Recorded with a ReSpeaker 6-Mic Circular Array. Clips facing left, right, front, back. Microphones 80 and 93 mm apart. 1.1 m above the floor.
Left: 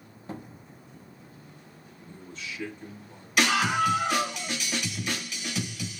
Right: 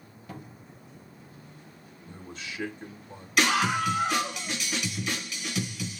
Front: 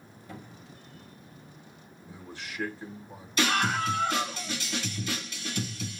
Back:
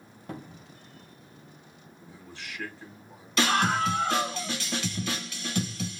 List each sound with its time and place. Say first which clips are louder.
0.3 s a cupboard door: left 4 dB, back 5 dB; 150° left, 1.1 m
2.1 s a man speaking: even, front 2 dB; 60° right, 1.3 m
3.4 s a scream: left 1 dB, back 2 dB; 175° left, 4.5 m